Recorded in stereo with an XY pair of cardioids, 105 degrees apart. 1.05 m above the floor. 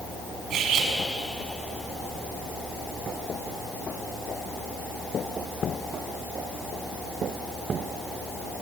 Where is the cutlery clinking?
70° right, 5.5 m.